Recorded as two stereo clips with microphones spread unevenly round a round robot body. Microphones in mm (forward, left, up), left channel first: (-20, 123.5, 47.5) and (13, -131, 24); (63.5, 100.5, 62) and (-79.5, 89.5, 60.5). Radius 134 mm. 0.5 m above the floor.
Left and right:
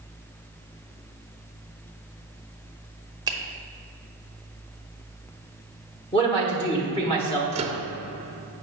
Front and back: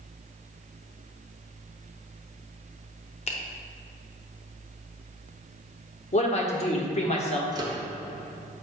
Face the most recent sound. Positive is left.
turn(degrees=-125)